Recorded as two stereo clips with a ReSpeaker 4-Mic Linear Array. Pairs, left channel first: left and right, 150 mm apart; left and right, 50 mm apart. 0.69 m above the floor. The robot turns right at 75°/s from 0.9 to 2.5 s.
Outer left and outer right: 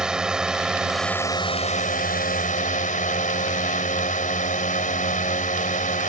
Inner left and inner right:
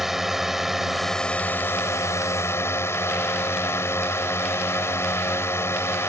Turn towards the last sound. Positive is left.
turn(degrees=115)